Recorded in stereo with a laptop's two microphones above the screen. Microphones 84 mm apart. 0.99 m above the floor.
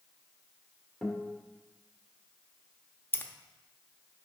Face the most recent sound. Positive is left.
turn(degrees=25)  # may be behind; listen again after turning